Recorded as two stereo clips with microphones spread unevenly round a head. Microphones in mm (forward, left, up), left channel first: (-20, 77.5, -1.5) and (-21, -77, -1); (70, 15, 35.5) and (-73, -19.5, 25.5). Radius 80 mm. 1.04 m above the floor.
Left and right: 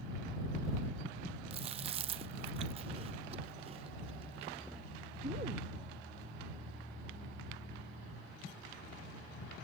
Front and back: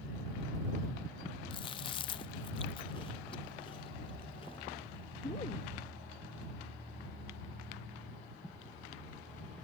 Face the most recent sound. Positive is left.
turn(degrees=-40)